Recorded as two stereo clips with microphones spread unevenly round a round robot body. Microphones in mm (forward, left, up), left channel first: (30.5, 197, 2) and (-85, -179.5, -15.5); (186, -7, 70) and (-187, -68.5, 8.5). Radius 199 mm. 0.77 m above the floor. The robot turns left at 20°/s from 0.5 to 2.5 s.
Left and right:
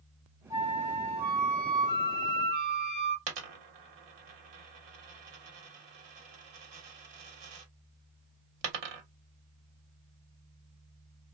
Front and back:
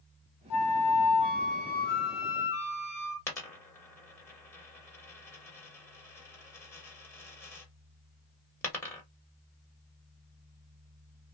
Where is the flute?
25° right, 1.3 m; by 3.2 s 65° right, 1.3 m.